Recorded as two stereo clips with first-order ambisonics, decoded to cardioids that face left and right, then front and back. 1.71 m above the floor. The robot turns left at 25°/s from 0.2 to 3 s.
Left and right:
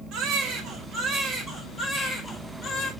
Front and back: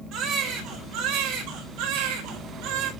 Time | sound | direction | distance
0.1 | a baby crying | 130° right | 4 m